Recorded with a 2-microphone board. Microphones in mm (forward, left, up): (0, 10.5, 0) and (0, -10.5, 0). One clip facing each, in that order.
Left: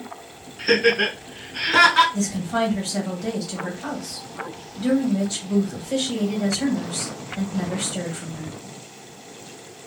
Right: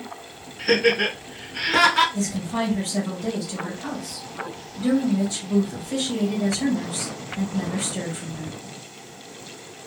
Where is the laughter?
20° left (ahead or behind), 1.3 m.